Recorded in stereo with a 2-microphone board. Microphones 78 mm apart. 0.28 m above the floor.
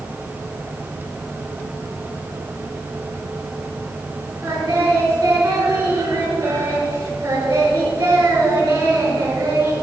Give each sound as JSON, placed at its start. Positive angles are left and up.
{"t": 4.4, "sound": "singing", "side_deg": -35, "distance_m": 4.5}